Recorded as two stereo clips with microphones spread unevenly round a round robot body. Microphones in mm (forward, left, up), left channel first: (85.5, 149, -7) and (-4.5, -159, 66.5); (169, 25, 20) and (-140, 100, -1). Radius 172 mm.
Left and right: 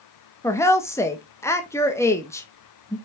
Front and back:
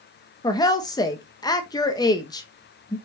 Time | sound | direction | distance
0.4 | a woman speaking | 55° left | 0.9 m